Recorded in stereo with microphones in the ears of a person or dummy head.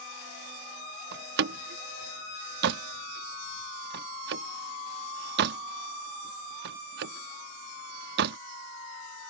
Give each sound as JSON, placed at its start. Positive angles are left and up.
{"t": 1.1, "sound": "a door slam", "side_deg": -60}